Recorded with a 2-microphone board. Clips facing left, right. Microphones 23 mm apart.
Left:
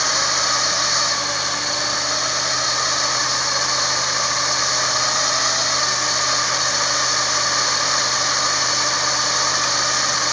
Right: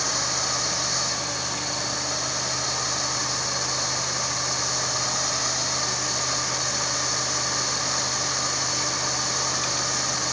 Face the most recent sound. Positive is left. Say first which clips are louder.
# left 7 dB
turn(degrees=30)  # may be behind; listen again after turning